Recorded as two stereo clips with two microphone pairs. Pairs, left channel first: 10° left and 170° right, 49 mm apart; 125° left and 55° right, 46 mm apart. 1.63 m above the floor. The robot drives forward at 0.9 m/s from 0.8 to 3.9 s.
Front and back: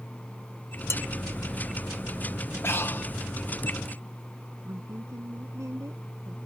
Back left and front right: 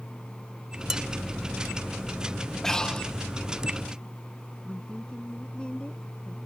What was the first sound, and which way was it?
Dishes clattering, 25° left.